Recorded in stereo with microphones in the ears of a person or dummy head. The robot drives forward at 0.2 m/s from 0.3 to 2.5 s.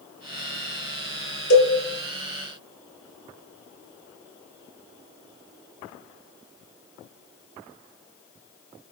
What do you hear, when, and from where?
1.5 s a cowbell: 65° left (ahead or behind), 0.8 m